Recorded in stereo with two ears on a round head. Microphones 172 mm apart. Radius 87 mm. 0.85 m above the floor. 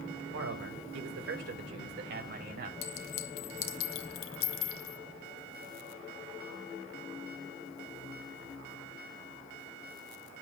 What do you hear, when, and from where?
0.3 s a man speaking: 85° right, 2.5 m; by 2.7 s 55° right (ahead or behind), 3.5 m
2.8 s a clink: 75° left (ahead or behind), 1.1 m